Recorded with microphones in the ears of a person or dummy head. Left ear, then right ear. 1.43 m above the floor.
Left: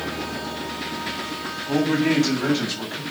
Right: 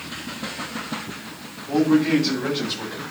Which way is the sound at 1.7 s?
40° left (ahead or behind).